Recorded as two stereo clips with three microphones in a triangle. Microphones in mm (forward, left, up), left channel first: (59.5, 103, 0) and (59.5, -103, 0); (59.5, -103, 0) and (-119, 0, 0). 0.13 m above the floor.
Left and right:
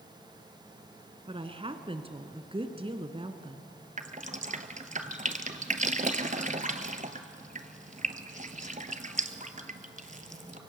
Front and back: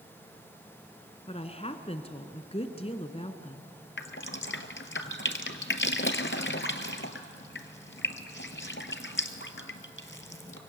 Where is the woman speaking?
55° right, 1.5 m.